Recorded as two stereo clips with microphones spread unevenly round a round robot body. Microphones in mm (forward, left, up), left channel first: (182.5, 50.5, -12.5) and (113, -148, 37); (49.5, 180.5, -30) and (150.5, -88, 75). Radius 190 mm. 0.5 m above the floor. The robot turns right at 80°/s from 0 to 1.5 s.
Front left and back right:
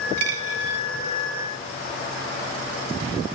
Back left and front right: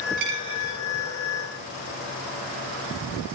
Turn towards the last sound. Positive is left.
turn(degrees=-10)